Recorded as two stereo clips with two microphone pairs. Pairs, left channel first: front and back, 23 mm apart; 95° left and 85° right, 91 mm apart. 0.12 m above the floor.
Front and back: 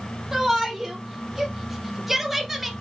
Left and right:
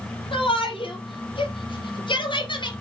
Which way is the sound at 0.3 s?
105° left.